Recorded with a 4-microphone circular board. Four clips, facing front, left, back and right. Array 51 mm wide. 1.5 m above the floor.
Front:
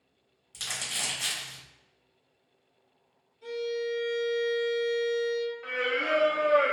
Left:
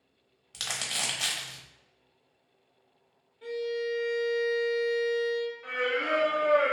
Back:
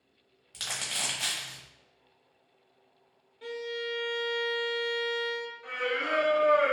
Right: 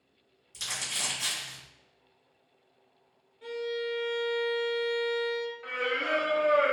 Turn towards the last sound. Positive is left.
turn(degrees=-30)